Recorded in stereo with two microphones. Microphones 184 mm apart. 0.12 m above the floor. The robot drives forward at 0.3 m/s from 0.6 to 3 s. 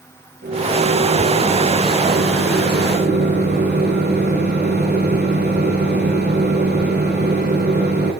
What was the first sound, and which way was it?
A microwave, 65° right (ahead or behind).